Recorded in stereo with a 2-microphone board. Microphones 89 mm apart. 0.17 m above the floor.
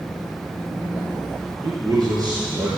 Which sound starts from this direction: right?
A man speaking, at 1.6 s.